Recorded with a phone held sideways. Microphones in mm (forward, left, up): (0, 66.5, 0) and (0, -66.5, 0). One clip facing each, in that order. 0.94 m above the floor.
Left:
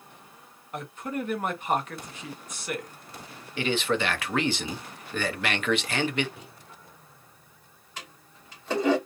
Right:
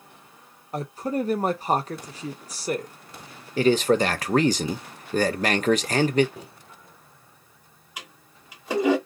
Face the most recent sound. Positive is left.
turn(degrees=-10)  # may be behind; listen again after turning